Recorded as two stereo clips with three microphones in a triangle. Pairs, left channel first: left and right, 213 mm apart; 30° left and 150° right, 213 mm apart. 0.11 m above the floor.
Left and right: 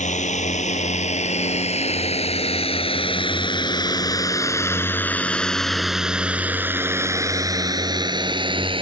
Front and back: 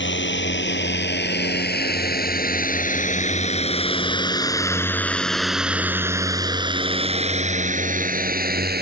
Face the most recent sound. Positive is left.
turn(degrees=-145)